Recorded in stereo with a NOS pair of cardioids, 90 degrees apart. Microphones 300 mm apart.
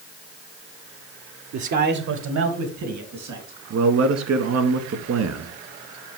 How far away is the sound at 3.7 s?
About 2.0 m.